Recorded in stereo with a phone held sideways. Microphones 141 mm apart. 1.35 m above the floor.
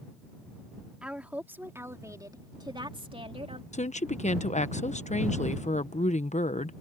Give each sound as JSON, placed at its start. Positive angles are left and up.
{"t": 1.0, "sound": "a woman speaking", "side_deg": -5}
{"t": 3.7, "sound": "a woman speaking", "side_deg": 55}